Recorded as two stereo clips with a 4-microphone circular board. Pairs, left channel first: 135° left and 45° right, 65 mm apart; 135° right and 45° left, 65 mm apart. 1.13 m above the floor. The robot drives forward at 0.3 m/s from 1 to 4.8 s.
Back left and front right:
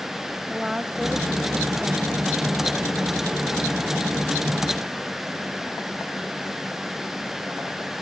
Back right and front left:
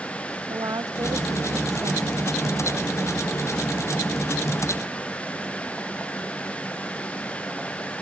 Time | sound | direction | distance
0.5 | a woman speaking | 35° left | ?